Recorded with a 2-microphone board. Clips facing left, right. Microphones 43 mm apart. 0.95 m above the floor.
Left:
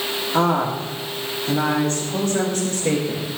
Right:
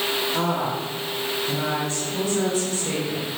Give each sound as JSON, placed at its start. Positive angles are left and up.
{"t": 0.3, "sound": "a woman speaking", "side_deg": 40, "distance_m": 2.0}